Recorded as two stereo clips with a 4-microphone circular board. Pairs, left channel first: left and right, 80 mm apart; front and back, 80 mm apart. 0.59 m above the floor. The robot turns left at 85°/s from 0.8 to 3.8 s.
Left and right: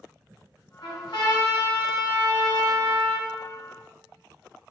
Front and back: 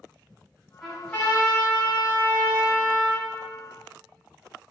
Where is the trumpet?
95° left, 1.9 m; by 3.3 s 115° right, 1.9 m.